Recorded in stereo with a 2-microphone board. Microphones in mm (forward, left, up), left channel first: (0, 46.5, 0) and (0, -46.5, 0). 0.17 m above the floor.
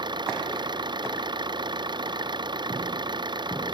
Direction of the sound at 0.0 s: 55° right (ahead or behind).